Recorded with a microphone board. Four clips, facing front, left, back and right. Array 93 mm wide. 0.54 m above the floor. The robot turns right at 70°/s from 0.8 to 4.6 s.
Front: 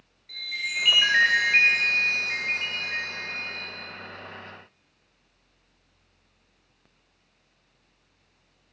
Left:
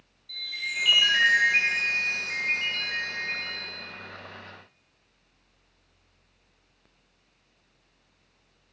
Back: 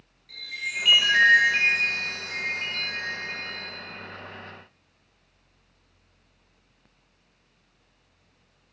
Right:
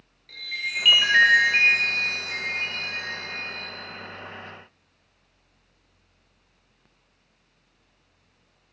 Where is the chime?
70° right, 0.7 m; by 3.6 s 130° left, 0.7 m.